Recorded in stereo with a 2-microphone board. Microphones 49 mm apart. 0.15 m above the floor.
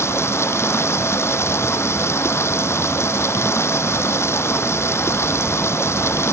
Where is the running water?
70° left (ahead or behind).